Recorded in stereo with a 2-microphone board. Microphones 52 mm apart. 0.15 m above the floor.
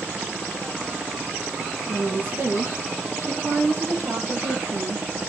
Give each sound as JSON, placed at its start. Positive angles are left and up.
{"t": 1.9, "sound": "a woman speaking", "side_deg": -40, "distance_m": 3.5}